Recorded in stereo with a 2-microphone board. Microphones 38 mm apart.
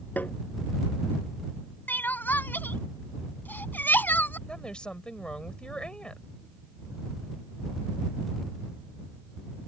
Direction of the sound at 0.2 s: 55° left (ahead or behind).